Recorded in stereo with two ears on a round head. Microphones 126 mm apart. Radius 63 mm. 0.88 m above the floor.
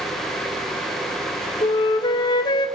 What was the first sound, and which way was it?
A flute, 30° left (ahead or behind).